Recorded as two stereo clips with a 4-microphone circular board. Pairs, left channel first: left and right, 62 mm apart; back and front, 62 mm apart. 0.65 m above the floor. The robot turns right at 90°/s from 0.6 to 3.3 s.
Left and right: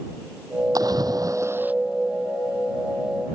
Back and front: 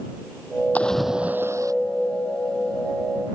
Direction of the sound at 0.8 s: 110° right.